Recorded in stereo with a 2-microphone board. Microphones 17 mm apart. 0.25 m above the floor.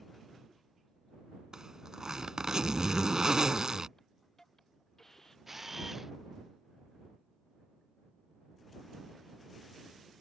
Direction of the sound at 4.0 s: 25° left (ahead or behind).